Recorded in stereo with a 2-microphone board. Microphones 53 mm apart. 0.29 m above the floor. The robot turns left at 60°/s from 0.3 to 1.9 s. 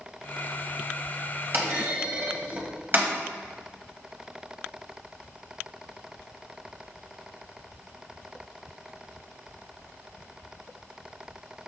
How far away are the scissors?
I don't hear scissors.